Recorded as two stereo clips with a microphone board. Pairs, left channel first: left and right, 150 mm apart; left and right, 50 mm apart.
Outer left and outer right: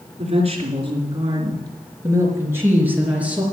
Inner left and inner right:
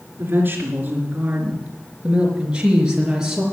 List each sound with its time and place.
0.2 s a woman speaking: 45° right (ahead or behind), 3.5 m; by 3.4 s 10° right (ahead or behind), 4 m